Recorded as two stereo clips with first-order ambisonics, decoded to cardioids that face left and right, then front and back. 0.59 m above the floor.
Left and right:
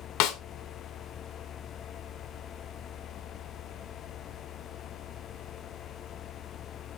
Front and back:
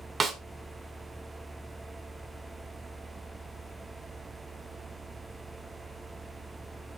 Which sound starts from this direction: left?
A snare drum, at 0.2 s.